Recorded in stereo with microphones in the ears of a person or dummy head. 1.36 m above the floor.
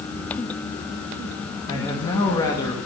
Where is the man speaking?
20° left (ahead or behind), 2.5 m.